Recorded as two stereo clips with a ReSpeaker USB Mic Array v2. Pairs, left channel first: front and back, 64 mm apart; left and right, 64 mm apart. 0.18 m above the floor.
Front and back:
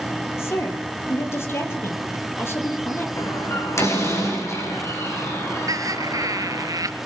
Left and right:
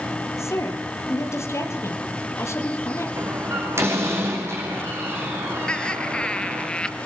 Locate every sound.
0.4 s a woman speaking: 50° left, 4.5 m
3.2 s a door slam: 40° right, 8 m
5.7 s laughter: 165° left, 2.5 m